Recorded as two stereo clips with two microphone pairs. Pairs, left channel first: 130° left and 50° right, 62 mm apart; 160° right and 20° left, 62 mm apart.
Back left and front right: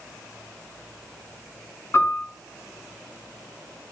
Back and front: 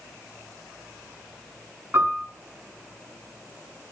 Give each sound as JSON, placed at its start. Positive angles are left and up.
{"t": 1.9, "sound": "a piano", "azimuth_deg": 75, "distance_m": 5.0}